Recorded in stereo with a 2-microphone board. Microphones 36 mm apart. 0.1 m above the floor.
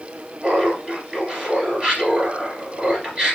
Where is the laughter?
20° right (ahead or behind), 1.8 m.